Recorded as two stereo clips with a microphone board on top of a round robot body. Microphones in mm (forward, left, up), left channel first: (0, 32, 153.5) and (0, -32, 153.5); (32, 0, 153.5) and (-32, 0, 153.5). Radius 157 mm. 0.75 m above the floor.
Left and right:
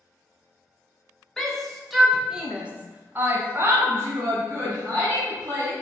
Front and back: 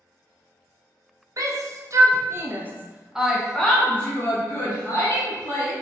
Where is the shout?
175° left, 1.3 m; by 5.7 s 45° right, 1.8 m.